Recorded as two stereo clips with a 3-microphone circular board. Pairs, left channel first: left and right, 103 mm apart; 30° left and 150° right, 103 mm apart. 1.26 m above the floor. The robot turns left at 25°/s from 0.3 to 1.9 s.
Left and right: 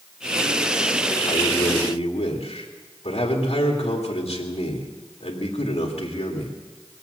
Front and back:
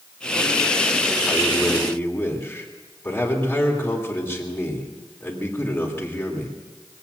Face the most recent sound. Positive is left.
turn(degrees=100)